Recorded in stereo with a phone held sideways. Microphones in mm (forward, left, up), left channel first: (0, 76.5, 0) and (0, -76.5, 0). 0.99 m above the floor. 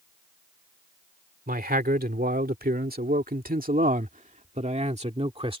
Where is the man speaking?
75° right (ahead or behind); by 5.6 s 35° right (ahead or behind).